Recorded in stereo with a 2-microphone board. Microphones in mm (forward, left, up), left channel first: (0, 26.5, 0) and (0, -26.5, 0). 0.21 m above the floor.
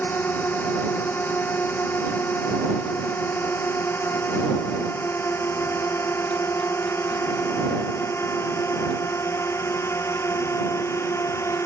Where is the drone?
35° left (ahead or behind); by 11.7 s 55° left (ahead or behind).